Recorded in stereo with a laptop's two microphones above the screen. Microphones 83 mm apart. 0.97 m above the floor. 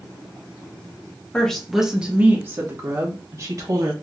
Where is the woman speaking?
10° left (ahead or behind), 0.9 m; by 3.9 s 50° right (ahead or behind), 1.5 m.